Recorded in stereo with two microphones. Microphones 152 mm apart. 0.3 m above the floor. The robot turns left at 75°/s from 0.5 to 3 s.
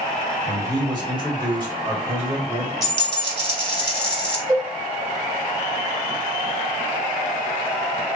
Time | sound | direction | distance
0.5 | a man speaking | 35° right | 1.3 m
2.8 | a dropped coin | 50° right (ahead or behind) | 1.4 m
4.5 | a cowbell | 20° left (ahead or behind) | 1.8 m